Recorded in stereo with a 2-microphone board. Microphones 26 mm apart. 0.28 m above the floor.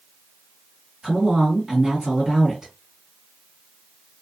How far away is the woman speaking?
About 1.7 m.